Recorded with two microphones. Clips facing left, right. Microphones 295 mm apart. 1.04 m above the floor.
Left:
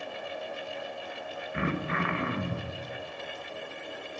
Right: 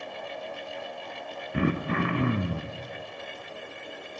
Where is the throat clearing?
40° right (ahead or behind), 0.5 m.